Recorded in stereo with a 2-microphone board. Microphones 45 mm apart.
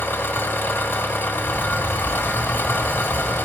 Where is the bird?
5° left (ahead or behind), 1.1 m.